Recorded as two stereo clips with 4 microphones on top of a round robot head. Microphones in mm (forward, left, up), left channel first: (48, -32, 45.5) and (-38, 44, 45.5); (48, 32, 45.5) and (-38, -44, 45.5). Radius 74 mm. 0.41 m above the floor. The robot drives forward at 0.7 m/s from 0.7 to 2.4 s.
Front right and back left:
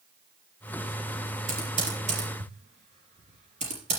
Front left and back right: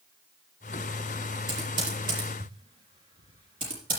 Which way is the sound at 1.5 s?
170° left.